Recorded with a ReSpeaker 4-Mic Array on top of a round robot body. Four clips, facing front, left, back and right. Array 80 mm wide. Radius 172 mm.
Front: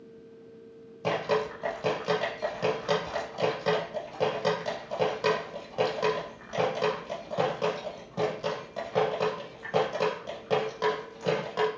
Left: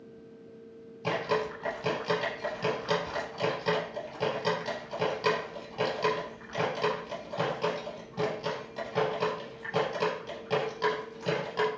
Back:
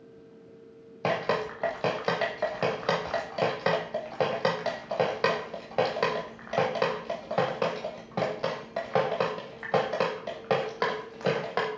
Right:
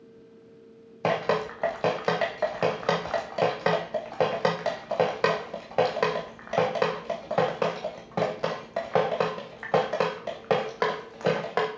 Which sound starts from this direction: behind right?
Dripping, at 1.0 s.